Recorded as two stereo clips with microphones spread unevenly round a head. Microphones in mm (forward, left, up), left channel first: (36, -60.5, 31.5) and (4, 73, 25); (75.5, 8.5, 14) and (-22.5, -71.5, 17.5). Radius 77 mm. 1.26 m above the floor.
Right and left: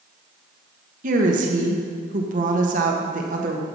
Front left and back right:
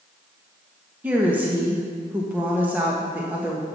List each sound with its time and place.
1.0 s a woman speaking: 140° left, 1.5 m